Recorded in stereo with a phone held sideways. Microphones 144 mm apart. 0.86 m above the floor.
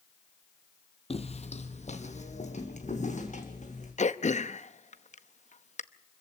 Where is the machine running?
I don't hear a machine running.